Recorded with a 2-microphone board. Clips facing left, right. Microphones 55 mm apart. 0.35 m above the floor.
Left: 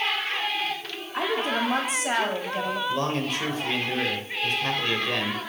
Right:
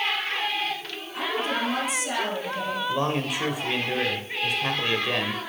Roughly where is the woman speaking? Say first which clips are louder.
Left 2 dB; left.